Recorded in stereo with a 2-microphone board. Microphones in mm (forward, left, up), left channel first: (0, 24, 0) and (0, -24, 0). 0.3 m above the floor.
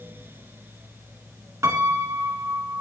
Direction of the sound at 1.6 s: 65° right (ahead or behind).